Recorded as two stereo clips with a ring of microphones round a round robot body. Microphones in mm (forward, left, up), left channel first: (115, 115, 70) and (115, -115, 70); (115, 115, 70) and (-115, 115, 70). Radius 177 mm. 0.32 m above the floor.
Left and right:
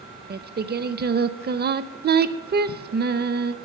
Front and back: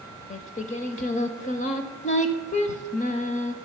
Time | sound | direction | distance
0.3 | singing | 50° right | 0.7 m